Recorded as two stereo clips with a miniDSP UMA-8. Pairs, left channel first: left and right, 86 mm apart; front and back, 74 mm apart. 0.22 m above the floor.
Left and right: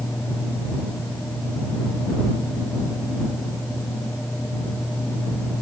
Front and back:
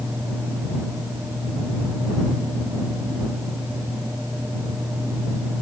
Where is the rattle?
No rattle in this recording.